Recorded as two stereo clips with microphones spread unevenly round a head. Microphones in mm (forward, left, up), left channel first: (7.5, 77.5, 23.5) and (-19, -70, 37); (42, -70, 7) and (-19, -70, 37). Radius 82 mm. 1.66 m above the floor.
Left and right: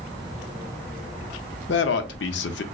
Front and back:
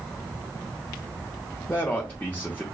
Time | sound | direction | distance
1.7 | a man speaking | 90° left | 0.6 m